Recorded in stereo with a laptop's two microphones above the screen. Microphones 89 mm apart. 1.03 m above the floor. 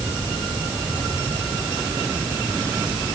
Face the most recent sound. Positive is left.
No sound to turn to.